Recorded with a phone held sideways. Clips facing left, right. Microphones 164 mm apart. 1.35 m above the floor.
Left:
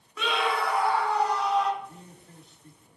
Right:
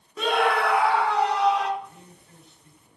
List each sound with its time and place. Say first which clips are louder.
0.2 s a scream: right 5 dB; 35° right (ahead or behind), 0.7 m; by 1.7 s 75° right (ahead or behind), 2 m
1.8 s a man speaking: even; 40° left (ahead or behind), 3 m